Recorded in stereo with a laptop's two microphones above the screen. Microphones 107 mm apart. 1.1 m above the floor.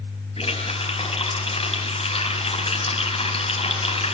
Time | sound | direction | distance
0.4 | a running tap | 65° left (ahead or behind) | 5 m